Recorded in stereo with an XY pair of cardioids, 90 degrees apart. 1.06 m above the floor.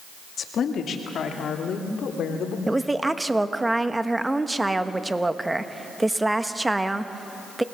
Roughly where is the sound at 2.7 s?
Ahead.